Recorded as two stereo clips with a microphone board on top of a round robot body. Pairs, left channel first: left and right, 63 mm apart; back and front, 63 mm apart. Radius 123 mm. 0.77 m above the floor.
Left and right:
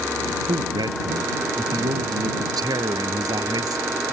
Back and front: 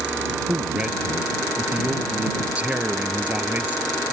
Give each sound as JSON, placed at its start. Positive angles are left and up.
{"t": 0.5, "sound": "a man speaking", "azimuth_deg": -80}